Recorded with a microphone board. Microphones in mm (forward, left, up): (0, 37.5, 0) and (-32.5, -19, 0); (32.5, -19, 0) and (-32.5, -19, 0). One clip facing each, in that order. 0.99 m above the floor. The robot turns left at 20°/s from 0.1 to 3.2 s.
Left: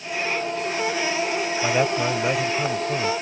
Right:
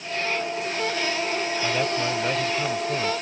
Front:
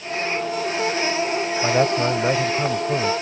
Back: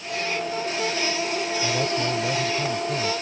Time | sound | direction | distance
1.6 | a man speaking | straight ahead | ?